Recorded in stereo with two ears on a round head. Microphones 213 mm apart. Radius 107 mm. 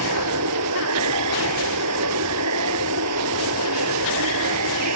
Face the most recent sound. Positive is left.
turn(degrees=-85)